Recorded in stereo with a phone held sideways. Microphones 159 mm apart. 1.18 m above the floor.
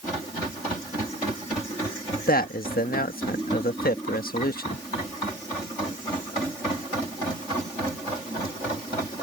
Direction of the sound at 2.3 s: 70° left (ahead or behind).